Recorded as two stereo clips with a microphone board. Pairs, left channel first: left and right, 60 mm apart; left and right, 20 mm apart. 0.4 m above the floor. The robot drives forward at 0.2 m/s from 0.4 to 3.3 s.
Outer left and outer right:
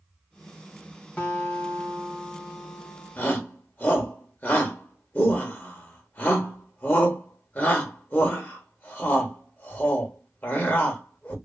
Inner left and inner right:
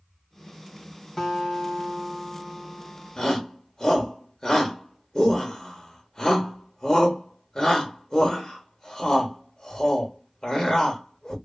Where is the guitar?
20° left (ahead or behind), 1.3 m.